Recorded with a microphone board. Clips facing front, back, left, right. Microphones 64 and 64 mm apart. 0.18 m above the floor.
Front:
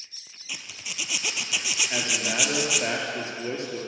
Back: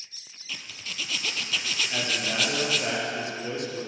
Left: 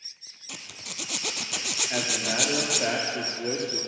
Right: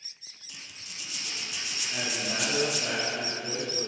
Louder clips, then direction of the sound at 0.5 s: Even, left 5 dB; 80° left.